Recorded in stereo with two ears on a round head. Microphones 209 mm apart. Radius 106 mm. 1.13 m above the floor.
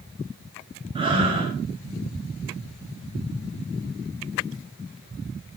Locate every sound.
0.9 s breathing: 25° right (ahead or behind), 5 m